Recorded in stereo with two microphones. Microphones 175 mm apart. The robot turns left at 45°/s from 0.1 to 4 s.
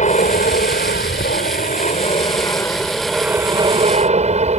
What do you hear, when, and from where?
0.0 s an aircraft: 130° left; by 4.6 s 45° right